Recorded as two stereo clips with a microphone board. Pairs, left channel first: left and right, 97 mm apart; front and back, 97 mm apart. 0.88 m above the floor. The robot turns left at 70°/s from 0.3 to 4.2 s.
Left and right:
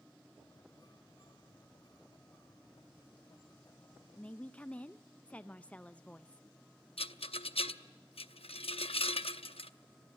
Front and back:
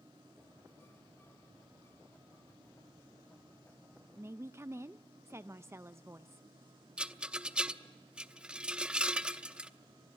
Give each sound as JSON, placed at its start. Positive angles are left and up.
{"t": 4.2, "sound": "a woman speaking", "azimuth_deg": 155, "distance_m": 0.5}
{"t": 7.0, "sound": "a rattle", "azimuth_deg": 100, "distance_m": 0.7}